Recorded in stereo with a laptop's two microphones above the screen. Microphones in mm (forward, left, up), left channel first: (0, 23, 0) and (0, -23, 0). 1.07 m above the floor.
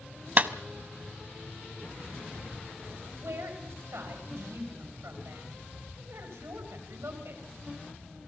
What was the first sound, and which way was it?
A clap, 40° right (ahead or behind).